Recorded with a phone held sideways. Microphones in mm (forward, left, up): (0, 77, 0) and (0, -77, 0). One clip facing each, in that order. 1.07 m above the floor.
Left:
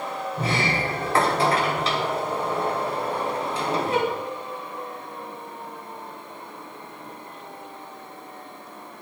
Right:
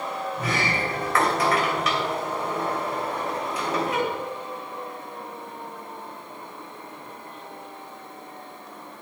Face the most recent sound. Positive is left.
turn(degrees=30)  # may be behind; listen again after turning